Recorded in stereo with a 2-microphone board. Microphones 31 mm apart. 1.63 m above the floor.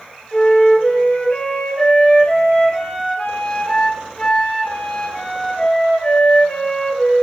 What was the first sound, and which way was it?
A flute, 40° left (ahead or behind).